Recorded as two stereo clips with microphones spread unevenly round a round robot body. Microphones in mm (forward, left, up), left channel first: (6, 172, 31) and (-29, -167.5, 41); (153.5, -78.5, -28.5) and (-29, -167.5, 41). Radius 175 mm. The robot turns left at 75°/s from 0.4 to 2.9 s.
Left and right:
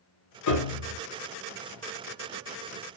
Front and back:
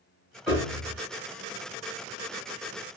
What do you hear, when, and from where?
0.5 s a piano: 95° left, 0.7 m; by 1.0 s 55° left, 0.7 m